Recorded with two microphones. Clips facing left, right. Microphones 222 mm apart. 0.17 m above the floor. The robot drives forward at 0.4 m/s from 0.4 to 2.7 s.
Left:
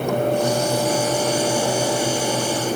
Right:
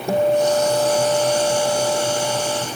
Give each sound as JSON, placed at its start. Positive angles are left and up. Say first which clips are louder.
{"t": 0.1, "sound": "a guitar", "louder": "right 4 dB", "side_deg": -35}